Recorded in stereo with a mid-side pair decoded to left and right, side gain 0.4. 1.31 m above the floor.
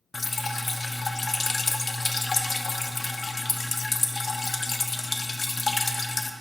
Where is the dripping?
35° left, 0.5 m.